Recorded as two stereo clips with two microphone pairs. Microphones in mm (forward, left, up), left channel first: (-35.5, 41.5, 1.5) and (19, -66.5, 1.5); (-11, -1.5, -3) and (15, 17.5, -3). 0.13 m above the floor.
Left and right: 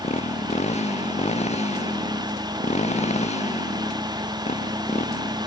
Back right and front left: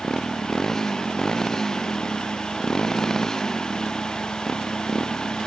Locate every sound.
0.0 s a motorcycle: 140° left